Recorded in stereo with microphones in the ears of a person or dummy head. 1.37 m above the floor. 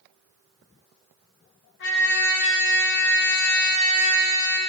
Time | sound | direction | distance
1.8 | a trumpet | 70° left (ahead or behind) | 1.1 m